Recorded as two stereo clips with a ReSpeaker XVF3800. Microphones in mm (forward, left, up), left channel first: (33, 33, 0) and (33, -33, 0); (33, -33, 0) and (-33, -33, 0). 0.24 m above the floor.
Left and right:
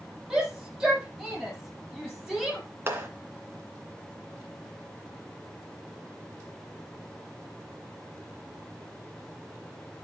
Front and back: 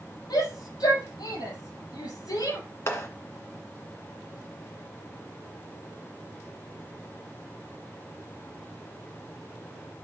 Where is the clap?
45° right, 2 m.